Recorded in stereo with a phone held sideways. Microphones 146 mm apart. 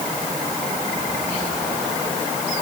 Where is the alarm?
I don't hear an alarm.